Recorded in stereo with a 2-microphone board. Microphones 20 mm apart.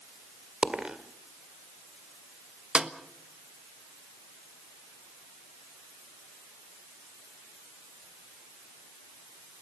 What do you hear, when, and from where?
0.6 s a dropped coin: 45° right (ahead or behind), 1.9 m
2.8 s a snare drum: 55° right (ahead or behind), 1.3 m